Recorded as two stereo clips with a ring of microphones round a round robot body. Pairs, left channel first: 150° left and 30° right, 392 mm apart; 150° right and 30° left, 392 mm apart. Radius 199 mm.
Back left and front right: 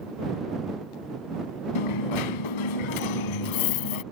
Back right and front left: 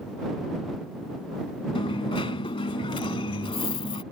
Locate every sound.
1.8 s a dropped coin: 135° left